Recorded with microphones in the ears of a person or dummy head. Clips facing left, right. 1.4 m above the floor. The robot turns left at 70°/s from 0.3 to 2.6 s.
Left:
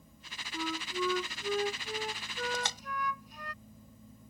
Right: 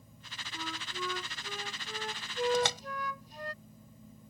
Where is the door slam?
60° right (ahead or behind); by 2.8 s 65° right (ahead or behind).